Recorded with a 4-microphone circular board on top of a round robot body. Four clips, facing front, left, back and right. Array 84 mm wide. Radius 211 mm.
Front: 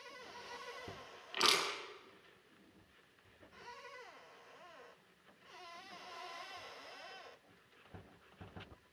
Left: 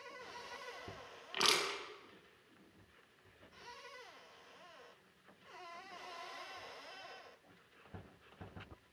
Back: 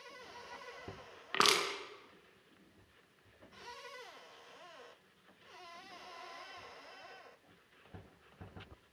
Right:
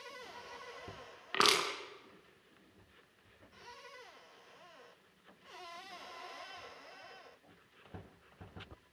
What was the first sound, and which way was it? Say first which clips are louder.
Crushing: right 5 dB, back 4 dB; 140° right.